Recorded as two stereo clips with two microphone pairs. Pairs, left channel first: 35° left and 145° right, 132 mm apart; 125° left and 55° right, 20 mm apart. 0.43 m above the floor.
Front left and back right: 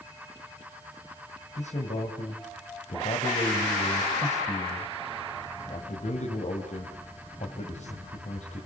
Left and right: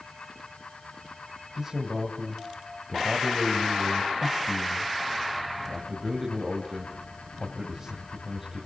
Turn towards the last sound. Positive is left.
turn(degrees=15)